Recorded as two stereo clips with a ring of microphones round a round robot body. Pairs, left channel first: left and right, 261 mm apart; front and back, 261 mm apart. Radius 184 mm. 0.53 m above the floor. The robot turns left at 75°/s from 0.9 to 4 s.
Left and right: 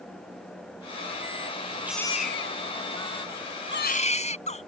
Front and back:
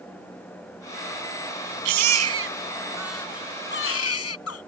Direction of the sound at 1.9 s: 175° right.